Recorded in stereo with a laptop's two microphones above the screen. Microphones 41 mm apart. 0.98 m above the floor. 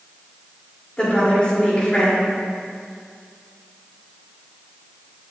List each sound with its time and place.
1.0 s a woman speaking: 25° left (ahead or behind), 3 m